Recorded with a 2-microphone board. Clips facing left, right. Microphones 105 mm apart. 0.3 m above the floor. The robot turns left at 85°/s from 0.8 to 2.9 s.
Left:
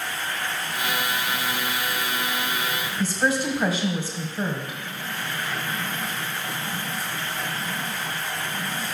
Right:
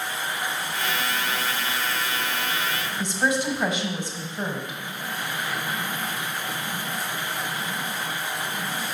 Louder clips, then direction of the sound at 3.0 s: Left 1 dB; 5° left (ahead or behind).